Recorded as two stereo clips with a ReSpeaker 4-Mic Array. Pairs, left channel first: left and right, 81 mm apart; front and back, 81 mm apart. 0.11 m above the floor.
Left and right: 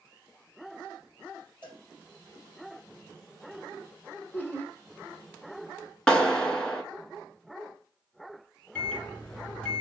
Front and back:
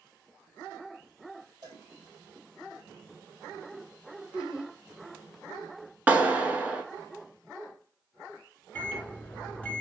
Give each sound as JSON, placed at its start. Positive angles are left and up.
{"t": 1.6, "sound": "a cowbell", "azimuth_deg": -150, "distance_m": 3.0}
{"t": 4.3, "sound": "laughter", "azimuth_deg": 115, "distance_m": 1.5}
{"t": 6.1, "sound": "a clap", "azimuth_deg": 150, "distance_m": 1.0}
{"t": 8.8, "sound": "a microwave", "azimuth_deg": 40, "distance_m": 1.2}